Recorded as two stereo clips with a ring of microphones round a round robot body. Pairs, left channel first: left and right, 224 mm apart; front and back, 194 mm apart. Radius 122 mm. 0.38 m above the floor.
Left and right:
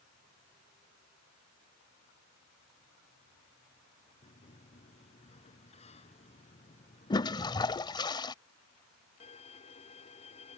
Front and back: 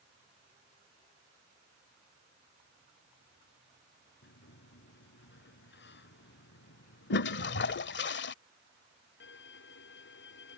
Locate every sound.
4.2 s a sliding door: 25° left
7.1 s a toilet flushing: 20° left
9.2 s a violin: 25° left